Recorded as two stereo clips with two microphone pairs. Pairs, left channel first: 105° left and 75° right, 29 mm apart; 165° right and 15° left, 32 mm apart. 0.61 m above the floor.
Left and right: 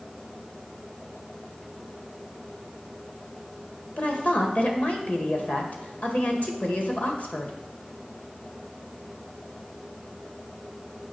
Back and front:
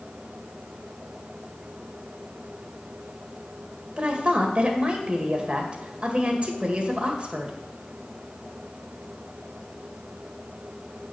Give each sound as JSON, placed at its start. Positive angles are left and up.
{"t": 4.0, "sound": "a woman speaking", "azimuth_deg": 70, "distance_m": 1.9}